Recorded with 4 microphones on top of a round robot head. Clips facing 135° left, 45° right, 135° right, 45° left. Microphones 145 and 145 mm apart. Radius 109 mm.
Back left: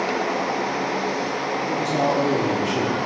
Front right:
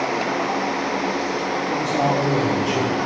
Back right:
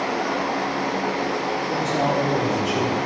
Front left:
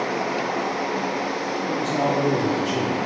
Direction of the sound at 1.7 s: 75° left.